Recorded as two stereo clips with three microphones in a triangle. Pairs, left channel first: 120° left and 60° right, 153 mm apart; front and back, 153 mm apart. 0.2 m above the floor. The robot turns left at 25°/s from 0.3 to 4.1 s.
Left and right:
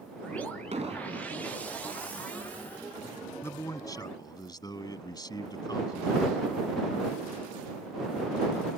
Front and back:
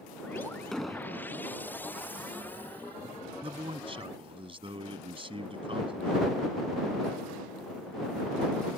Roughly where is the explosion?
Right.